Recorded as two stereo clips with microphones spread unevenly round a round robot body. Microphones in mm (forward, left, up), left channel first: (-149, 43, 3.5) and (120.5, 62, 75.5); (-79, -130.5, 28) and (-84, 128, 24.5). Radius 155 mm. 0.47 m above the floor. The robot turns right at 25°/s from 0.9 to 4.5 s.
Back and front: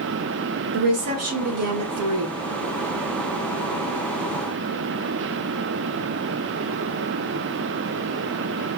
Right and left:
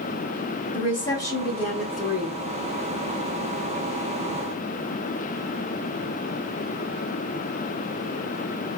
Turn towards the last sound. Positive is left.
turn(degrees=65)